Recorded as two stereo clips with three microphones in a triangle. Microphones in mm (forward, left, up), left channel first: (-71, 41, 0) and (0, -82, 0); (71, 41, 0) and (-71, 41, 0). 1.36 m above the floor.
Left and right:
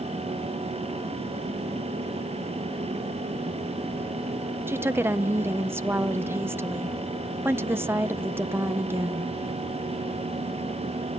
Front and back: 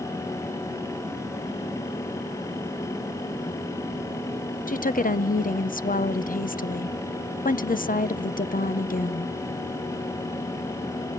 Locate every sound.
4.7 s a woman speaking: 10° left, 0.6 m